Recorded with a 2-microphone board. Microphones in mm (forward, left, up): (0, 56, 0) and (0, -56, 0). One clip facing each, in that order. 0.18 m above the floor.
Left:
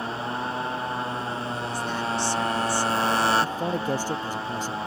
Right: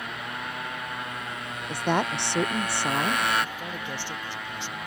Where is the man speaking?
40° left (ahead or behind).